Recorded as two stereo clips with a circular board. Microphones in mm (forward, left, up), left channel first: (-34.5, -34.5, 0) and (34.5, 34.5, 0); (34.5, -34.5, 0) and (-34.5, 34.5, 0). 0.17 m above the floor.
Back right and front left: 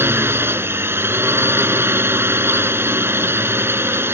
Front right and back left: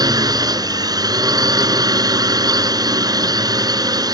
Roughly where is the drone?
Left.